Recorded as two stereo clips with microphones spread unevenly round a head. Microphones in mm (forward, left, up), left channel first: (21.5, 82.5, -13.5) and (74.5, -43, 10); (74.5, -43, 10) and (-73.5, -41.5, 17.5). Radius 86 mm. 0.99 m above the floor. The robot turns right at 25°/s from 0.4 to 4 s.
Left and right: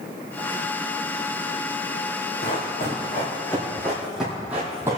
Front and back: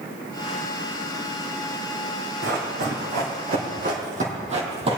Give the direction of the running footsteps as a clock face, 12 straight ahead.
7 o'clock.